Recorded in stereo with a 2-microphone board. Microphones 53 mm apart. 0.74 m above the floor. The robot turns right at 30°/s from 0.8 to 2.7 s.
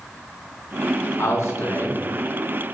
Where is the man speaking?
60° left (ahead or behind), 1.1 m.